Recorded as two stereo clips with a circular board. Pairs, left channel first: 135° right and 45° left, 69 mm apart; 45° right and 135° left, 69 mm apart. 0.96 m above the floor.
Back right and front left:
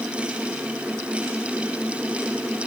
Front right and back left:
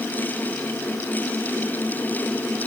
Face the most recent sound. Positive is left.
No sound to turn to.